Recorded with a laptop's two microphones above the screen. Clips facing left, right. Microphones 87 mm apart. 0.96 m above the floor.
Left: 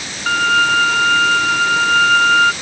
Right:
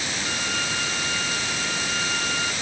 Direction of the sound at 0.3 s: 65° left (ahead or behind).